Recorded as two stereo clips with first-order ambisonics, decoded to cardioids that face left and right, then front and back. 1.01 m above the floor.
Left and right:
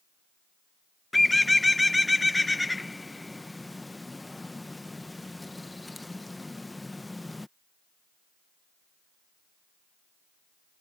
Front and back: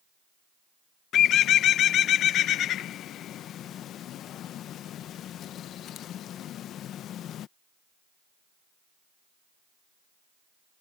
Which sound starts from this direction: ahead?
A bird, at 1.1 s.